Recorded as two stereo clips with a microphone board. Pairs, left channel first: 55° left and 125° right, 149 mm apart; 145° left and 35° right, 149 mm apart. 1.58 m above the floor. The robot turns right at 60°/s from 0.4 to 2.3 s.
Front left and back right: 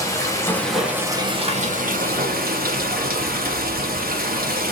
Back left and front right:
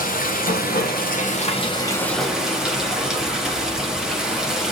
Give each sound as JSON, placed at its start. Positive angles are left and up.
{"t": 0.0, "sound": "running water", "azimuth_deg": 125, "distance_m": 1.1}